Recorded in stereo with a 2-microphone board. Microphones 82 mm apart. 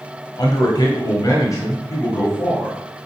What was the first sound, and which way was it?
A man speaking, 55° left (ahead or behind).